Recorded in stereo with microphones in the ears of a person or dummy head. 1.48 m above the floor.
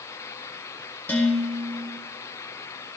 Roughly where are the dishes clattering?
Centre.